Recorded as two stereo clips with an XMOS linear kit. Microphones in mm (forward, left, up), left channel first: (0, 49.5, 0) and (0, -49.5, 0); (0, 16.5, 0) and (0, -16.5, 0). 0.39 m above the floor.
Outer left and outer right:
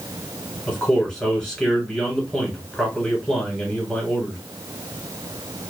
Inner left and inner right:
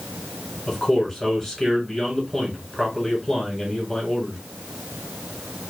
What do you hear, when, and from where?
0.7 s a man speaking: 10° left (ahead or behind), 1.5 m